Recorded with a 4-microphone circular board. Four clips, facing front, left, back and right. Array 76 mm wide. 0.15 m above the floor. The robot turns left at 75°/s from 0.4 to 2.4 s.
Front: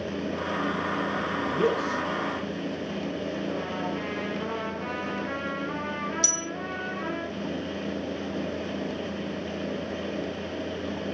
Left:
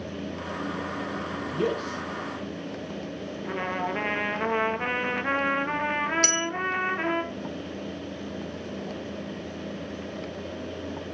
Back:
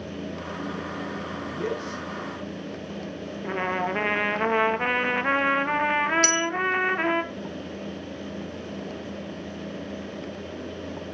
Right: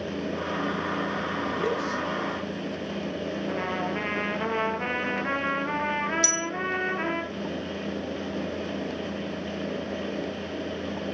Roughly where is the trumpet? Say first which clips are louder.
Left 2 dB, back 3 dB; behind.